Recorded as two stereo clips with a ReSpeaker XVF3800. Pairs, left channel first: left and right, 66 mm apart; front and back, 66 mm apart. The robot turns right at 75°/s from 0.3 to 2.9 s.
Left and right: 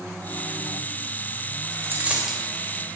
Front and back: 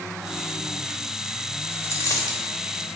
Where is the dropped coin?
55° right, 1.1 m; by 2.4 s straight ahead, 1.1 m.